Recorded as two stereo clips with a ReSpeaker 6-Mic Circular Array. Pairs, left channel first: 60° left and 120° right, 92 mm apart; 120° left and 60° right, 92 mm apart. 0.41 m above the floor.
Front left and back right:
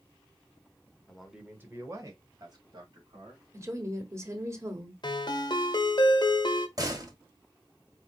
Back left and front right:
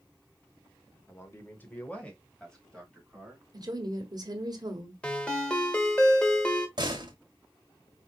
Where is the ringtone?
45° left, 1.0 m.